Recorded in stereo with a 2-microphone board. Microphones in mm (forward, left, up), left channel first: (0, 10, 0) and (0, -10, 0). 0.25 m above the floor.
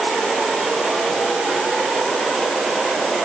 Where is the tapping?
No tapping in this recording.